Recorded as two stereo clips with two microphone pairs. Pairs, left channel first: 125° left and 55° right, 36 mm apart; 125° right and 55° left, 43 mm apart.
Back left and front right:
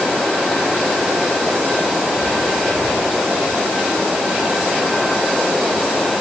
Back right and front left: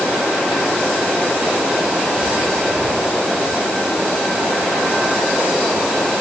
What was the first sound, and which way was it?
Only background noise.